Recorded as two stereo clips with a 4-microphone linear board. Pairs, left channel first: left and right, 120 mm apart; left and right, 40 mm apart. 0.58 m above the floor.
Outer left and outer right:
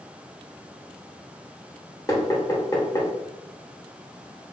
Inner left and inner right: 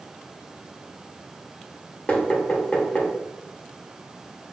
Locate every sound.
2.1 s knocking: 30° left (ahead or behind), 0.9 m